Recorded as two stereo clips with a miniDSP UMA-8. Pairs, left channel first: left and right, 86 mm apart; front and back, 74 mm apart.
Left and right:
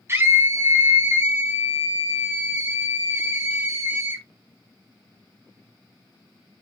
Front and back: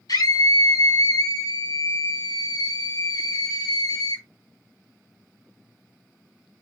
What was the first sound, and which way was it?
A scream, 30° right.